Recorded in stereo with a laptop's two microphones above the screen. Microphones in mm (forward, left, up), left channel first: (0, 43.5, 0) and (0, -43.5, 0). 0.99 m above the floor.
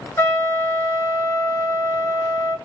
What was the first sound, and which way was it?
A trumpet, 30° left (ahead or behind).